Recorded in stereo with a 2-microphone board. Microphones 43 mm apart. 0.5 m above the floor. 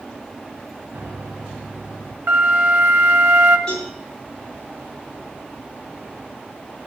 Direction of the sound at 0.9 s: 50° right (ahead or behind).